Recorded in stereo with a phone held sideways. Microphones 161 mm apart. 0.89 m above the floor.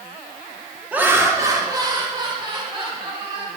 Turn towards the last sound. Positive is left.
turn(degrees=-35)  # may be behind; listen again after turning